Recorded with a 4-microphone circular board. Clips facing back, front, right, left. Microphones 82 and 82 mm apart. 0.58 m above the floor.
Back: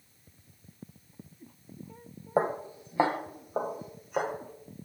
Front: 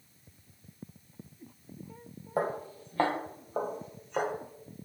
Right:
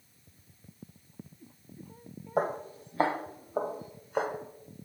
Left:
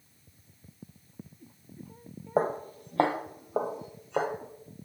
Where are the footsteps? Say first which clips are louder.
Back 3 dB, left 2 dB; 125° left, 0.7 m; by 4.3 s 95° left, 2.0 m.